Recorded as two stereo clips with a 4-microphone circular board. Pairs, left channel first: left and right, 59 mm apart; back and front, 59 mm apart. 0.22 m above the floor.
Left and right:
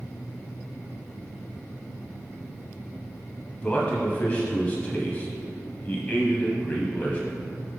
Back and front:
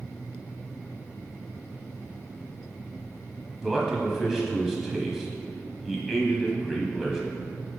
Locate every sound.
3.6 s a man speaking: 80° left, 1.0 m